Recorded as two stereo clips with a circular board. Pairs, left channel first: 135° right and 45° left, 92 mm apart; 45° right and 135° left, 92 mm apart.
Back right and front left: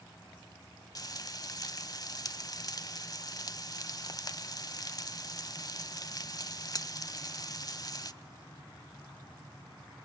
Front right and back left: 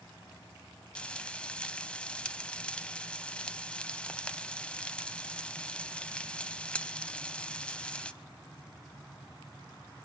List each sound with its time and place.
0.9 s frying: 120° right, 0.7 m